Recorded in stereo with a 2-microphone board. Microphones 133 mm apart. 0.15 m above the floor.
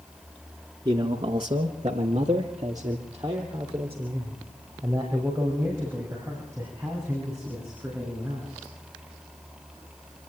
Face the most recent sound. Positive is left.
turn(degrees=-15)  # may be behind; listen again after turning